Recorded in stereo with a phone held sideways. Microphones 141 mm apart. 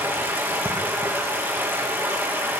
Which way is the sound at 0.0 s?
15° right (ahead or behind).